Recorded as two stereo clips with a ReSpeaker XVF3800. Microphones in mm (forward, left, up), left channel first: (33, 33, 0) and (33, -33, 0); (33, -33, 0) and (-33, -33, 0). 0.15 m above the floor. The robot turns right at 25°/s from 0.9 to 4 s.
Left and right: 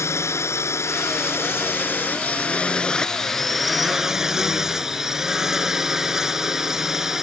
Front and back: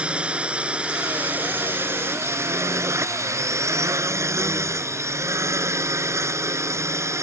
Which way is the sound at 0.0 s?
115° left.